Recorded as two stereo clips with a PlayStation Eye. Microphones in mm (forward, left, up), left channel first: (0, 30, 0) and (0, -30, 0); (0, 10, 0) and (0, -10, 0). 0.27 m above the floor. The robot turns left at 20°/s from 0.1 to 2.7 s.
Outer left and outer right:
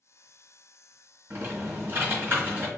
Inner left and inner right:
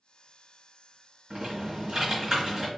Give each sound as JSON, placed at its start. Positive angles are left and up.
{"t": 1.3, "sound": "typing on a keyboard", "side_deg": -40, "distance_m": 1.4}